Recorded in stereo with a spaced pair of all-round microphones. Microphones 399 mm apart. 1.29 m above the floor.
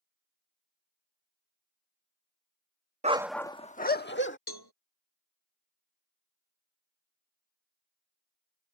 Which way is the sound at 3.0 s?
20° right (ahead or behind).